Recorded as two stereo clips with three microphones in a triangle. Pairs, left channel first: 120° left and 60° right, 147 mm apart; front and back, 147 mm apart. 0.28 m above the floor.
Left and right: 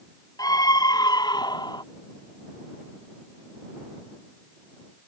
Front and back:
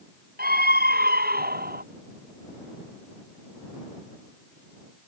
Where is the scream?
175° right; by 1.8 s straight behind.